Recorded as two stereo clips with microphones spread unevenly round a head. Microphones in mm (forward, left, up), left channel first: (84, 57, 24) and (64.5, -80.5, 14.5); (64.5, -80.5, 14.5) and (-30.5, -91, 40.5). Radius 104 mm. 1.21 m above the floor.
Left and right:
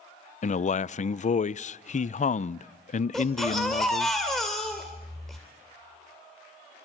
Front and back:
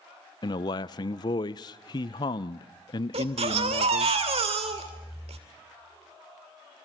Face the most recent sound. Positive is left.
turn(degrees=170)